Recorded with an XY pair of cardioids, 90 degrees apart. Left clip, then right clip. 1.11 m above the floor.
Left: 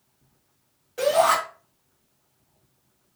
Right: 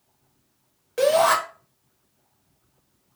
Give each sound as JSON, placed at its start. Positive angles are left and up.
{"t": 1.0, "sound": "a shout", "azimuth_deg": -70, "distance_m": 1.9}